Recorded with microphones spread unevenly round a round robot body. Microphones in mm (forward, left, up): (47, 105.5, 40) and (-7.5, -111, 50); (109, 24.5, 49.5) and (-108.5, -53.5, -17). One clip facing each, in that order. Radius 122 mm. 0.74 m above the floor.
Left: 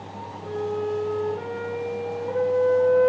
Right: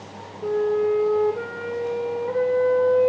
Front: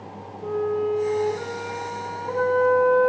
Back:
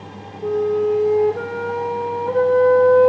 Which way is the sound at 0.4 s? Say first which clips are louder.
Right 7 dB, back 6 dB; 105° right.